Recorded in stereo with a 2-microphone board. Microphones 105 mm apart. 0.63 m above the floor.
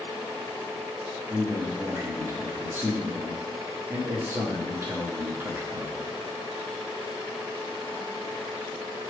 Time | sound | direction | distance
1.3 | a man speaking | 20° right (ahead or behind) | 0.9 m